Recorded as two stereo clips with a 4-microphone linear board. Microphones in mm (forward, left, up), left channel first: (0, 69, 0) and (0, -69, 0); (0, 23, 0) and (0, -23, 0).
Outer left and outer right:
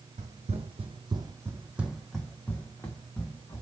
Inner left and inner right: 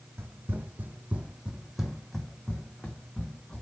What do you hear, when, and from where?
0.2 s running footsteps: 65° right (ahead or behind), 0.8 m; by 3.6 s 25° left (ahead or behind), 1.5 m